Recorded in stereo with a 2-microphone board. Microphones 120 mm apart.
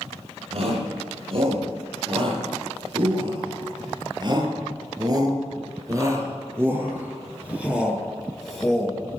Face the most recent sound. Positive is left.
turn(degrees=5)  # may be behind; listen again after turning